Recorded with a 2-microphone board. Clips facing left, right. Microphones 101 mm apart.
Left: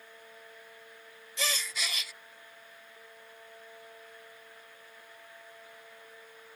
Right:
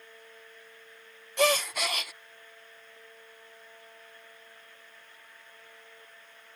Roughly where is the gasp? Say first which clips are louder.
Right 11 dB; right.